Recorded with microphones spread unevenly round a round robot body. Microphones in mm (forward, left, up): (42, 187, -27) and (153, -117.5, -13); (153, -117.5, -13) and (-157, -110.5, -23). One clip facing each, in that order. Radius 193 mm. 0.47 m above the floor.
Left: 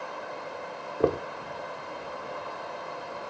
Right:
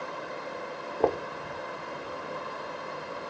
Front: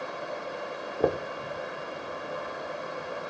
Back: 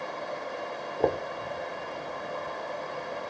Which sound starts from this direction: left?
Knocking, at 1.0 s.